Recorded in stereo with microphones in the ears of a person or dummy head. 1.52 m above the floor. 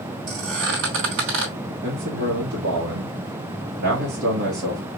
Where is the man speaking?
65° right (ahead or behind), 1.6 m.